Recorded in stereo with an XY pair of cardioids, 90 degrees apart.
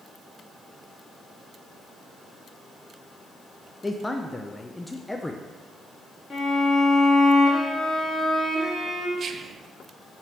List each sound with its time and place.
3.8 s a man speaking: 15° left, 0.6 m
6.3 s a violin: 25° left, 2.5 m
9.2 s whispering: 55° right, 0.7 m